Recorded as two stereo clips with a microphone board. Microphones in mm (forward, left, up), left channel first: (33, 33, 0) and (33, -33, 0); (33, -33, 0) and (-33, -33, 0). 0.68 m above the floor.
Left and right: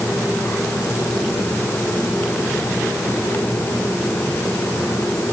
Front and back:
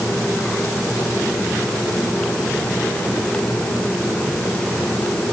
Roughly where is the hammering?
I don't hear hammering.